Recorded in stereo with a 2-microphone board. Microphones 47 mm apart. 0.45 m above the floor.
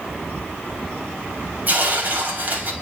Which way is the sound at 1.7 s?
40° right (ahead or behind).